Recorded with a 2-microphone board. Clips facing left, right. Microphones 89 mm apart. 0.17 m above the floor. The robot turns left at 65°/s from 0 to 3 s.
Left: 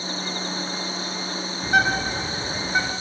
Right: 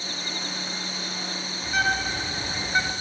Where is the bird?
85° left, 2 m; by 2.9 s straight ahead, 2 m.